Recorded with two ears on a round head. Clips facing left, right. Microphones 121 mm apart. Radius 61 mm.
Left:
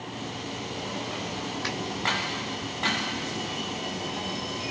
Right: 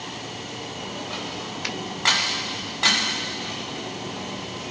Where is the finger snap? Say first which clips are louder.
Right 2 dB; 20° right (ahead or behind), 2.5 m.